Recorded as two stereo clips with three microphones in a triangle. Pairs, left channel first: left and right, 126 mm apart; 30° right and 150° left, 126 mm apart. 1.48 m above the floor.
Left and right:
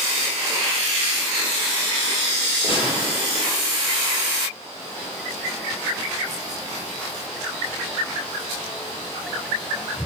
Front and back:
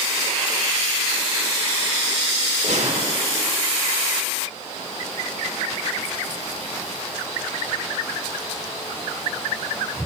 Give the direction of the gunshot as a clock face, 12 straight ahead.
8 o'clock.